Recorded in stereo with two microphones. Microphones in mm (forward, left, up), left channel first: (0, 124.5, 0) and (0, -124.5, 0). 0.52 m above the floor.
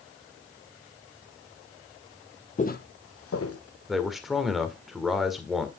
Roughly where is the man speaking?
Centre.